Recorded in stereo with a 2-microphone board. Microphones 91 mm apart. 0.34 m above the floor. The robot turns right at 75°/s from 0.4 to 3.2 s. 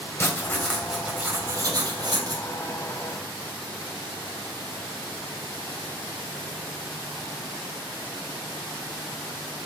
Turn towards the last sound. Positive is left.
turn(degrees=-5)